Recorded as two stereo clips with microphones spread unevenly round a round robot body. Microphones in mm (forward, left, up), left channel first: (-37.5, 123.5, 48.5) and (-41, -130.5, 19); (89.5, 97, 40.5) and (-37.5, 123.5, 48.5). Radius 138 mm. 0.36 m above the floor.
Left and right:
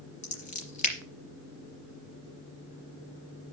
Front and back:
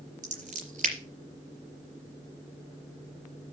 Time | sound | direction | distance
0.2 | scissors | 150° left | 4 m